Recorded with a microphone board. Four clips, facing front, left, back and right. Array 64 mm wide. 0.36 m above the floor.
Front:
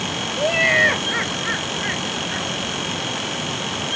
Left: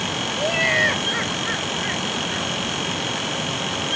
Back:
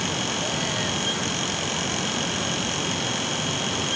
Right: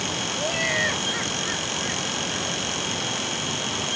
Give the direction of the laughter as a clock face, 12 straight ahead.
11 o'clock.